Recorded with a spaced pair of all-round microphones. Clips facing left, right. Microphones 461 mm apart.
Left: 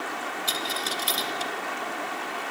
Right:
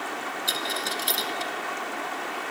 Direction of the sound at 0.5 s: 20° left (ahead or behind).